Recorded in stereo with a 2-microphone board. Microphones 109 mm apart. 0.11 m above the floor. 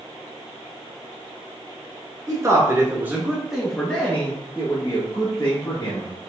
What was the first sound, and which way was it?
A man speaking, 35° right (ahead or behind).